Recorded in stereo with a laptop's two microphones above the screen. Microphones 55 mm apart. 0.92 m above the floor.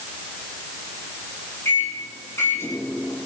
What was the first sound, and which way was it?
A microwave, 55° left (ahead or behind).